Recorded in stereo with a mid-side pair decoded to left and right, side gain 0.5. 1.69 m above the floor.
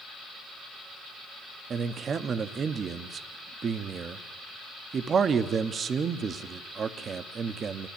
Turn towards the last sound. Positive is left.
turn(degrees=-45)